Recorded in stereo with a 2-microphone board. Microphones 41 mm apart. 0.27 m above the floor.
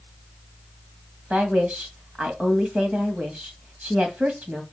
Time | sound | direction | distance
1.3 | a woman speaking | 30° right (ahead or behind) | 1.9 m